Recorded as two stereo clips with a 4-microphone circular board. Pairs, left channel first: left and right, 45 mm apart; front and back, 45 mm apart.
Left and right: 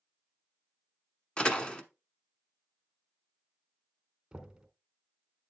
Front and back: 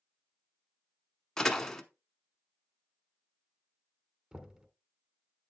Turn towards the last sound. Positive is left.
turn(degrees=-135)